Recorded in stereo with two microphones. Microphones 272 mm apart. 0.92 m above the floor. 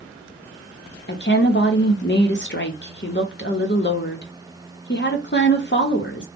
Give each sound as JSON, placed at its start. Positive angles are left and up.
{"t": 1.1, "sound": "a woman speaking", "side_deg": 40, "distance_m": 0.8}